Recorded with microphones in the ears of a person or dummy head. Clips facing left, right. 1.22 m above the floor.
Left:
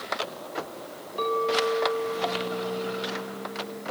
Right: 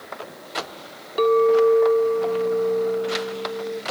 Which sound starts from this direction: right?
A clink, at 1.2 s.